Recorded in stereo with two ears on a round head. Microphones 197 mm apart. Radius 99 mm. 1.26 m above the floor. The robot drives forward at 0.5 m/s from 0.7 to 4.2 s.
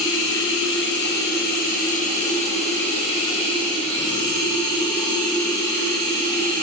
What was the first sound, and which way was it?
Running water, 60° left (ahead or behind).